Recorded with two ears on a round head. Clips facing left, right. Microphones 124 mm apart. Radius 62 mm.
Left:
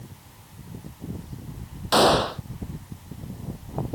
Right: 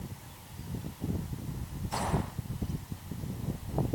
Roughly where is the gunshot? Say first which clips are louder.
Left 15 dB; left.